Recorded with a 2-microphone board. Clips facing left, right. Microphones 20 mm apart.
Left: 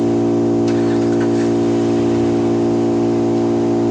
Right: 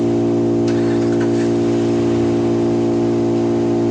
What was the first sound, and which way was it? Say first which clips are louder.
An engine running: left 1 dB; 25° left (ahead or behind).